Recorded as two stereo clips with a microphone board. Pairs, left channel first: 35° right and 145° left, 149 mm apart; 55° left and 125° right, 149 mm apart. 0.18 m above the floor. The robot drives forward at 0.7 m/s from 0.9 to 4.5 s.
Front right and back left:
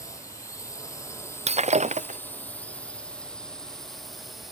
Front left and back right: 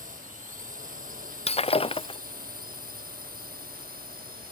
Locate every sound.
0.0 s a drone: 105° right; by 4.5 s 125° right
1.5 s breaking glass: 100° left; by 2.2 s 110° left